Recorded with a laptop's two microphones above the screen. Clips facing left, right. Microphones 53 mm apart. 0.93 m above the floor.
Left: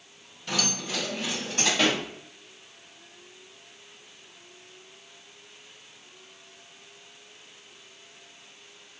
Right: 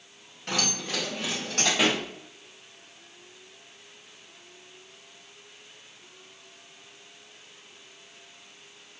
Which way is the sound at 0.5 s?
55° right (ahead or behind).